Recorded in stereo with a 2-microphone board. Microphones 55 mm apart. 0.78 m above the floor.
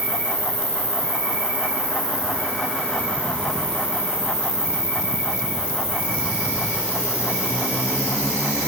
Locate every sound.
0.0 s an insect: 50° left (ahead or behind), 3.5 m